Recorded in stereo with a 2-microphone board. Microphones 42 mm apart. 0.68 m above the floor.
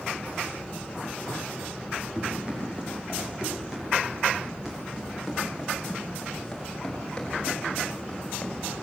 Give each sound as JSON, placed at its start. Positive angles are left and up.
{"t": 2.1, "sound": "running footsteps", "side_deg": -20, "distance_m": 9.5}